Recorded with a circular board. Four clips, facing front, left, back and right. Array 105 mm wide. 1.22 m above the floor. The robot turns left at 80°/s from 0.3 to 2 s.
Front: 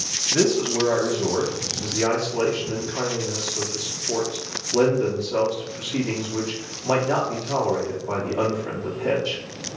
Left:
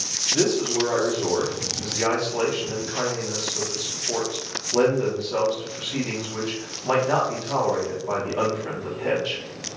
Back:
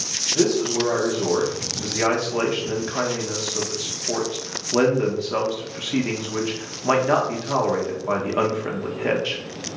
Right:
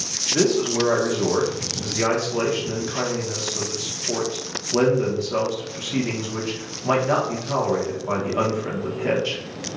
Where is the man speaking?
30° right, 1.2 m; by 9.4 s 165° right, 1.2 m.